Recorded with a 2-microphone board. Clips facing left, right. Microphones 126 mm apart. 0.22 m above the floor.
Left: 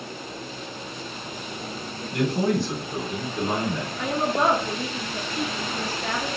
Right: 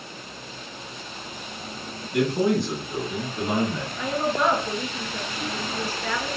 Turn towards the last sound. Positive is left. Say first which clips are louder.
# even
turn(degrees=45)  # may be behind; listen again after turning